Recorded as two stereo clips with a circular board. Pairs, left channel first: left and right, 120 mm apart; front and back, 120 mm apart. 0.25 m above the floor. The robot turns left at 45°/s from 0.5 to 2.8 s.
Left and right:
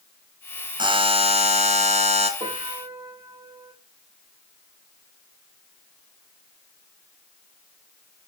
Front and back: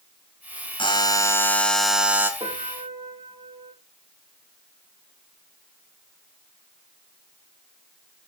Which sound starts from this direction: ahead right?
A buzzer, at 0.8 s.